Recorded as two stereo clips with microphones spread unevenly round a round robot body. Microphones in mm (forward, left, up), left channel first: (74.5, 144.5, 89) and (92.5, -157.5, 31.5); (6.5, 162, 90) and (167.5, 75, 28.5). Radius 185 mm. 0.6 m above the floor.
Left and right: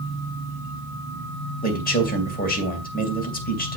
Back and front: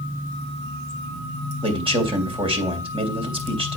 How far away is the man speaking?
About 3 m.